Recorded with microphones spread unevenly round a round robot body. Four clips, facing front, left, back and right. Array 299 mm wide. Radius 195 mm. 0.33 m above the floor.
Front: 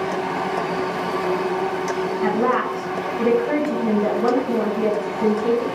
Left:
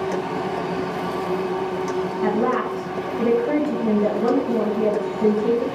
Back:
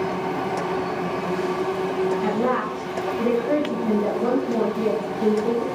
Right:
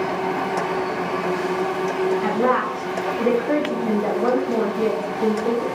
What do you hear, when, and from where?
2.2 s a woman speaking: 110° left, 1.9 m